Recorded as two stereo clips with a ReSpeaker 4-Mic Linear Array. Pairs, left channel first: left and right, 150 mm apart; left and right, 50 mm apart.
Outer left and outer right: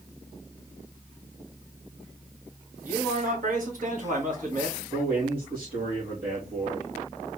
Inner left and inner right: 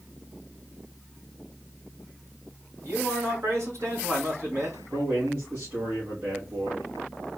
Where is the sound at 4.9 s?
75° right (ahead or behind), 1.8 m.